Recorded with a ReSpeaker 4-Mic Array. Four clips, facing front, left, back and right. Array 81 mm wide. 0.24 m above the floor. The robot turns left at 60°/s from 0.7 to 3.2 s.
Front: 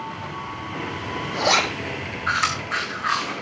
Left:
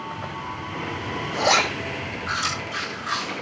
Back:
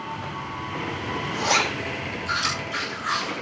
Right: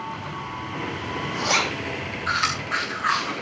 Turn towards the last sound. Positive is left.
turn(degrees=-70)